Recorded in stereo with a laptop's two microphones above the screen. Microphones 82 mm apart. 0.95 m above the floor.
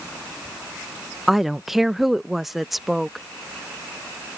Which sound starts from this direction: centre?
A woman speaking, at 1.3 s.